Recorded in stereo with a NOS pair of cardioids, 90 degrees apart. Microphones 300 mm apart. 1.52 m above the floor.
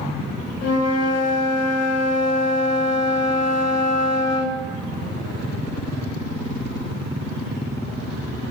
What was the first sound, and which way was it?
A flute, 55° left.